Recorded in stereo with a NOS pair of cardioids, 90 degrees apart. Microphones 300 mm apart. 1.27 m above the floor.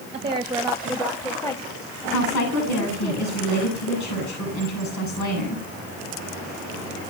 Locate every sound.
0.1 s a woman speaking: 25° right, 1.5 m; by 3.1 s 25° left, 4 m
2.1 s a woman speaking: 65° left, 8.5 m